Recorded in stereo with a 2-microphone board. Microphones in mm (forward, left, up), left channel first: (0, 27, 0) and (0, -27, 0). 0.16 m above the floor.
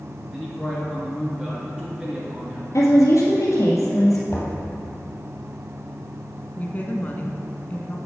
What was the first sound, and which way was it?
A man speaking, 15° right (ahead or behind).